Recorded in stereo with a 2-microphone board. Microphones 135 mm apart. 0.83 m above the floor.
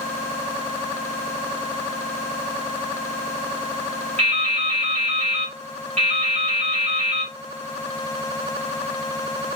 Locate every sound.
4.2 s dripping: 50° right (ahead or behind), 1.6 m